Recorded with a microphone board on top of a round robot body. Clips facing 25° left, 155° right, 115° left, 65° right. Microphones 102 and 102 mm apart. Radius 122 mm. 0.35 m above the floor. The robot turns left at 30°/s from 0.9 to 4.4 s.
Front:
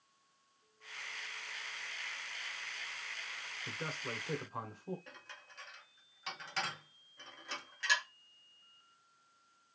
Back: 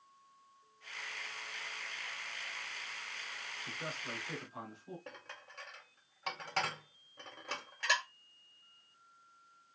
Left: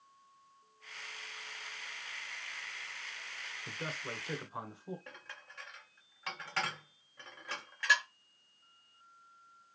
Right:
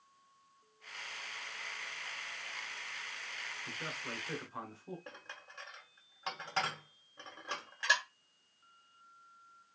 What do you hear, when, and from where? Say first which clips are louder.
3.7 s a man speaking: front 2 dB, left 3 dB; 65° left, 1.9 m; by 5.0 s 45° left, 1.9 m
5.1 s dishes clattering: back 4 dB, right 1 dB; 130° right, 1.4 m